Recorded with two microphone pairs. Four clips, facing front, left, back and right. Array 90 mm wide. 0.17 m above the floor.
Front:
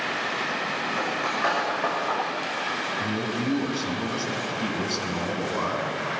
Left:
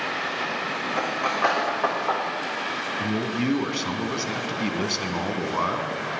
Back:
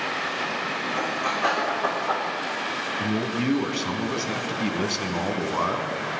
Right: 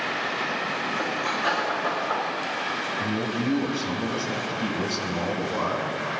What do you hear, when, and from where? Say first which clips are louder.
0.9 s cutlery clinking: left 5 dB, back 2 dB; 80° left, 5.5 m
3.0 s a man speaking: left 2 dB, back 5 dB; 125° left, 1.7 m